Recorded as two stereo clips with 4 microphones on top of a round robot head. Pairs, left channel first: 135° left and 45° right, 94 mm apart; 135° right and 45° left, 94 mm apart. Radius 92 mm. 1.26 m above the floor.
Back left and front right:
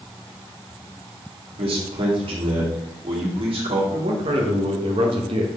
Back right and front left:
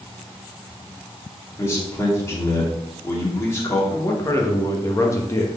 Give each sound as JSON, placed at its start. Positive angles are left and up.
{"t": 1.6, "sound": "a man speaking", "azimuth_deg": -75, "distance_m": 2.5}
{"t": 3.9, "sound": "a man speaking", "azimuth_deg": -75, "distance_m": 1.4}